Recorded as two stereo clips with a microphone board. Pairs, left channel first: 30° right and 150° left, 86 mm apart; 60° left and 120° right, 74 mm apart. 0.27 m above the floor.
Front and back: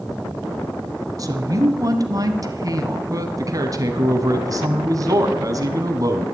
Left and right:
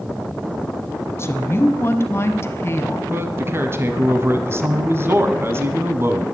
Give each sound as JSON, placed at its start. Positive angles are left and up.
{"t": 1.2, "sound": "a woman speaking", "azimuth_deg": 110, "distance_m": 1.9}
{"t": 3.1, "sound": "a man speaking", "azimuth_deg": -170, "distance_m": 1.9}